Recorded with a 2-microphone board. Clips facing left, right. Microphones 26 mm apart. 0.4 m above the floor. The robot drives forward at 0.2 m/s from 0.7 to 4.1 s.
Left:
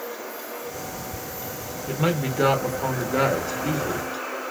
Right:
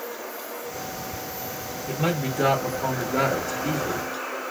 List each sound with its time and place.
1.9 s a man speaking: 20° left (ahead or behind), 0.8 m